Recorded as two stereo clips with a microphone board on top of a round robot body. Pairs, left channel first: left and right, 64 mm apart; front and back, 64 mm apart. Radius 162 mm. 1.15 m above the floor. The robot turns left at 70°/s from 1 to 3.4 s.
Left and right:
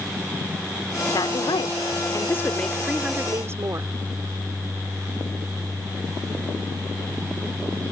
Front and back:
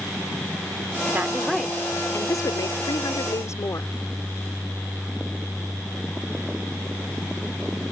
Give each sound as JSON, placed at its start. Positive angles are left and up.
{"t": 1.1, "sound": "a woman speaking", "azimuth_deg": 120}